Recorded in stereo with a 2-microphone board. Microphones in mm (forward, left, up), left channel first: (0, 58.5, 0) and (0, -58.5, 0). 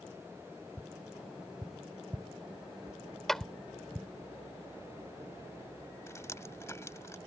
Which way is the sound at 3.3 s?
5° left (ahead or behind).